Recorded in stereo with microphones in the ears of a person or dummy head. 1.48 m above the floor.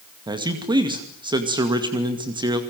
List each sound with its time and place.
0.3 s a man speaking: 25° right (ahead or behind), 2.5 m